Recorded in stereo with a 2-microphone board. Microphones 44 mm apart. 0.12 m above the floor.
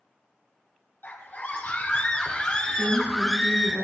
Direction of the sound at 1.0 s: 50° left (ahead or behind).